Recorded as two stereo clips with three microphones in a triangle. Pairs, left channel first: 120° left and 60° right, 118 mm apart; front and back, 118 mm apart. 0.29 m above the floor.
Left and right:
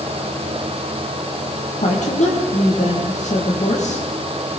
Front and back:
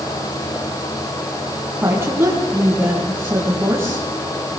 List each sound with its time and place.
1.8 s a woman speaking: 110° left, 8 m